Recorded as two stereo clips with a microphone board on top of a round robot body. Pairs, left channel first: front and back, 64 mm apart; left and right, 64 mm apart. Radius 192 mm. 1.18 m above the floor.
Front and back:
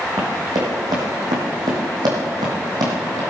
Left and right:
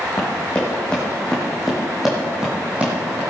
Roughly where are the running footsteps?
Behind left.